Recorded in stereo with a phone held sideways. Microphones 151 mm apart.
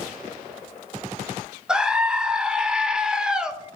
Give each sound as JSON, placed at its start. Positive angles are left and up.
{"t": 1.7, "sound": "a scream", "side_deg": -5, "distance_m": 0.6}